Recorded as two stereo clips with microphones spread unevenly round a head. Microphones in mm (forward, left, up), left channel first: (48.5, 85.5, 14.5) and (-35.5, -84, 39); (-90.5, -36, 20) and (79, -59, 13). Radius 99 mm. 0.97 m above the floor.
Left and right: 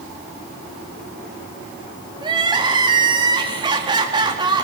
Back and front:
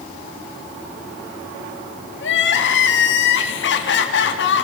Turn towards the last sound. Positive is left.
turn(degrees=175)